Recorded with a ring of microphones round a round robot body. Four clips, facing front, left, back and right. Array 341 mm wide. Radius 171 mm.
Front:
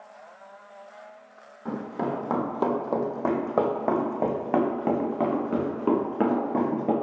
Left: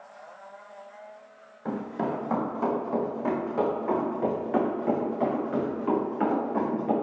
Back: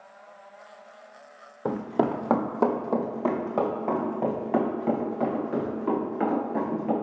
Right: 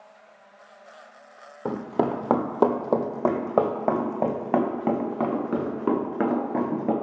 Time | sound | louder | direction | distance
1.6 | running footsteps | right 5 dB, back 4 dB | 140° right | 1.3 m